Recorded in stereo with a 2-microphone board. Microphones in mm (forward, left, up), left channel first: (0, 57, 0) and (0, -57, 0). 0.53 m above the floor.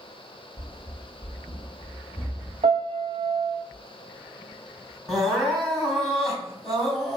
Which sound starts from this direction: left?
Running footsteps, at 0.6 s.